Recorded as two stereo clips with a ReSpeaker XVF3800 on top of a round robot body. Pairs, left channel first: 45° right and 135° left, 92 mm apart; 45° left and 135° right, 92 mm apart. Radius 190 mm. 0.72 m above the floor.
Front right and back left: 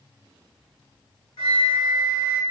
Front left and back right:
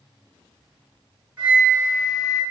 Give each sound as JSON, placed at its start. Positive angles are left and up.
{"t": 1.4, "sound": "a flute", "azimuth_deg": -60, "distance_m": 1.3}